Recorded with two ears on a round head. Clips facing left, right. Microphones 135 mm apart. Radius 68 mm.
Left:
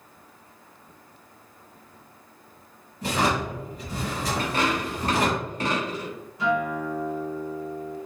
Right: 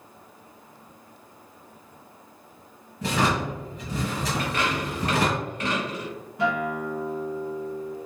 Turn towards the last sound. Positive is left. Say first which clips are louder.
# left 1 dB
turn(degrees=-50)  # may be behind; listen again after turning